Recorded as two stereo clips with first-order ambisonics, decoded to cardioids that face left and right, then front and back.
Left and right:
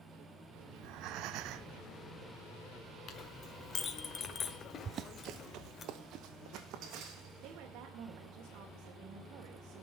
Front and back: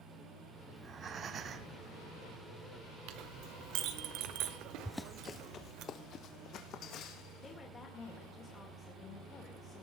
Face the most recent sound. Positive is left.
turn(degrees=-70)